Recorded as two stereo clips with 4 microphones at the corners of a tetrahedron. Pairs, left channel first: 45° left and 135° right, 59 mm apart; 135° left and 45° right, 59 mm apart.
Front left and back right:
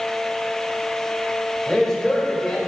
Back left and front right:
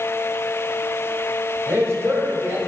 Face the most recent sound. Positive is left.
turn(degrees=-35)